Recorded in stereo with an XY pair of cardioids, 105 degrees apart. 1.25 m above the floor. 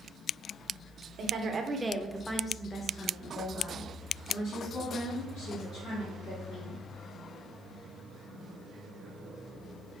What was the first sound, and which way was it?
A woman speaking, 55° right.